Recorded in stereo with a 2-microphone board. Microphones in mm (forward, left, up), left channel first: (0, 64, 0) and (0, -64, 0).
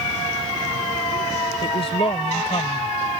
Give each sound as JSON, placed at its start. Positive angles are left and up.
{"t": 1.6, "sound": "a woman speaking", "side_deg": 40}